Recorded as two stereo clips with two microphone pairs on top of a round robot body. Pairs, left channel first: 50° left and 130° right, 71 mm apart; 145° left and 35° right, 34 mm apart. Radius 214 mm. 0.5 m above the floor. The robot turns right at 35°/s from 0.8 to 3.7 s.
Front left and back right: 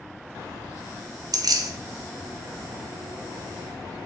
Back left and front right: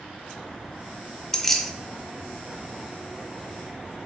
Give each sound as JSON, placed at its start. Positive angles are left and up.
{"t": 1.3, "sound": "keys jangling", "azimuth_deg": -135, "distance_m": 0.5}